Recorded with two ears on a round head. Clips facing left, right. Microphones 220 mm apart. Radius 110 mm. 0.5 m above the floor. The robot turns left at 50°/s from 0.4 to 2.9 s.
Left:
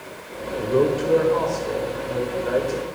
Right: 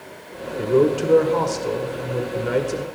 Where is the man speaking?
35° right, 1.7 m; by 2.9 s 150° right, 1.7 m.